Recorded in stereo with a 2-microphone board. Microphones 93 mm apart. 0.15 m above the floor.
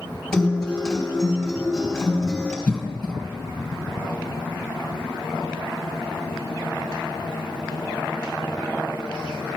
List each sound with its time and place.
0.3 s a guitar: 5° left (ahead or behind), 3 m
2.7 s a cough: 15° left (ahead or behind), 1.9 m